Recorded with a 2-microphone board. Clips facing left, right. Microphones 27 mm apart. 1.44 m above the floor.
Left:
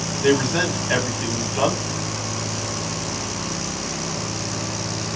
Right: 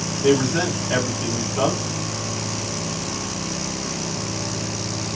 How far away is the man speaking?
About 1.2 m.